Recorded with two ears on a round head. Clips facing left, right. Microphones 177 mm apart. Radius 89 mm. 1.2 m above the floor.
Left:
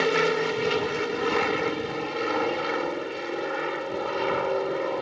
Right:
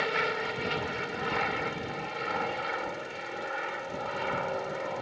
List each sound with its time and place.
0.0 s an aircraft: 55° left (ahead or behind)